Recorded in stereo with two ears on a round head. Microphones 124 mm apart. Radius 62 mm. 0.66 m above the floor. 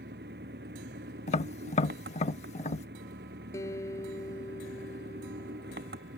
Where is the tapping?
50° left (ahead or behind).